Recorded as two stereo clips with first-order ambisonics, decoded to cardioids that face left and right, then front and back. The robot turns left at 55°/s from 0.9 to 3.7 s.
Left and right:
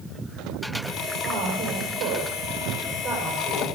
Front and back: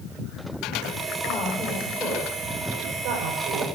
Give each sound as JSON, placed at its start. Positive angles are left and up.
{"t": 1.2, "sound": "a woman speaking", "azimuth_deg": -55, "distance_m": 4.5}